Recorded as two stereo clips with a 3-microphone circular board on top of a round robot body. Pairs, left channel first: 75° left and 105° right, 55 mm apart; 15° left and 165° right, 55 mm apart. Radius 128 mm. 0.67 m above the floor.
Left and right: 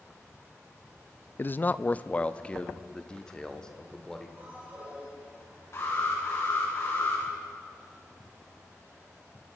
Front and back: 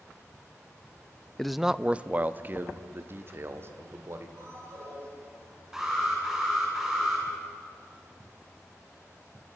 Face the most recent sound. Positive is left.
turn(degrees=115)